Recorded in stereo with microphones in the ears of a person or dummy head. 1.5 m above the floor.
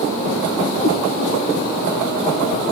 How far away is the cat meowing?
About 3 m.